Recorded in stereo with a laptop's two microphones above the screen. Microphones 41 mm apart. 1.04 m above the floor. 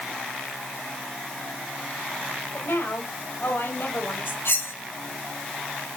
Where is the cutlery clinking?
85° left, 6.5 m.